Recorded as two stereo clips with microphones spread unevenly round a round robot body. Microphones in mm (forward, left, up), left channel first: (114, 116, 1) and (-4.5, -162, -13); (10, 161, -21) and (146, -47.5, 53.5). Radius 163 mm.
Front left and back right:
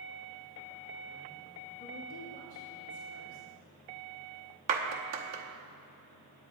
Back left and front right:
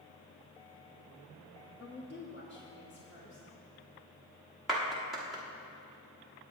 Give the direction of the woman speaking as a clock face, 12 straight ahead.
9 o'clock.